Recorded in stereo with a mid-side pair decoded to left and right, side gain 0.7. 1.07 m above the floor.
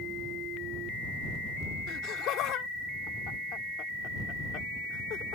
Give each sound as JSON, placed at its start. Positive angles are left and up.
{"t": 1.9, "sound": "laughter", "azimuth_deg": 55}